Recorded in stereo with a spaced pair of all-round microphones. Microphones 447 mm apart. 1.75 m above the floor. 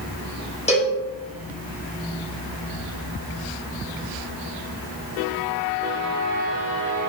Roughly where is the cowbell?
Centre.